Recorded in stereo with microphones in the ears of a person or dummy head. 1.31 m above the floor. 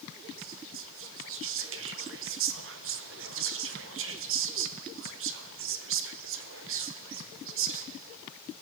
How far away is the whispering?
About 1.1 m.